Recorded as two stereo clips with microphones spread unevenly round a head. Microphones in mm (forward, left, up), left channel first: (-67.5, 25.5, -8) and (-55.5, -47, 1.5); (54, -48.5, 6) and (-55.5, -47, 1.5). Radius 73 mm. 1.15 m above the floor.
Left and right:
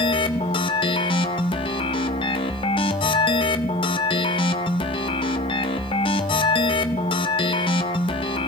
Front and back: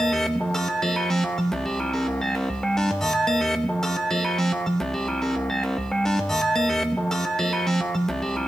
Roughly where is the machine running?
Left.